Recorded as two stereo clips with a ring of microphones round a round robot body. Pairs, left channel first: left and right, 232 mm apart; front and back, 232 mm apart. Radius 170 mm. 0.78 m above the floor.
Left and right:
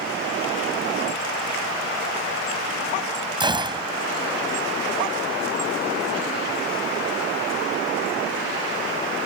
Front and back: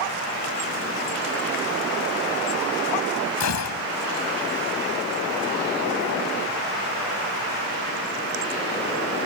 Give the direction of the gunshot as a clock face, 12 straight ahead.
1 o'clock.